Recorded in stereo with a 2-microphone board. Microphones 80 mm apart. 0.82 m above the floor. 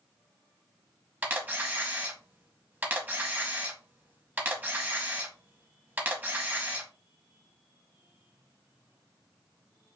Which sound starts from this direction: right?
A camera shutter, at 1.2 s.